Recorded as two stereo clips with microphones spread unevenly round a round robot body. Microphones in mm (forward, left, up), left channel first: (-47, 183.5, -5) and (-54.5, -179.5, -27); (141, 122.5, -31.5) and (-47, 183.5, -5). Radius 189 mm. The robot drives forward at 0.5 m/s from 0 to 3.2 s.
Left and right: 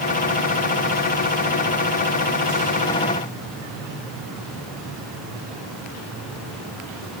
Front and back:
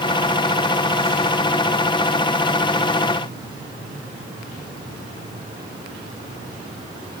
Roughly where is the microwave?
I don't hear a microwave.